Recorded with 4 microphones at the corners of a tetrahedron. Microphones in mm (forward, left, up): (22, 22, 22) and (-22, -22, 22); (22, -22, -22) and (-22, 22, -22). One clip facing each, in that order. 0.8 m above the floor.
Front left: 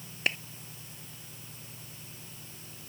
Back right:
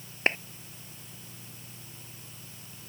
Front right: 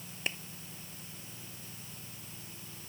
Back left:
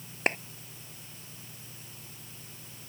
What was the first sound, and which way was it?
A clap, 170° left.